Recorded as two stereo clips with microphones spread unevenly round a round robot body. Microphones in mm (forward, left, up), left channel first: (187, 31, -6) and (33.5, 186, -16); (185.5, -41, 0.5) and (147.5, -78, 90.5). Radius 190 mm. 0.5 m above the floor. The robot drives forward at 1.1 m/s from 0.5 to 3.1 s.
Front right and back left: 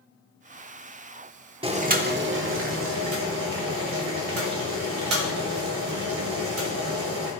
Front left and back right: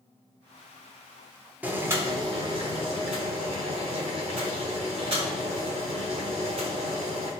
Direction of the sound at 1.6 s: 80° left.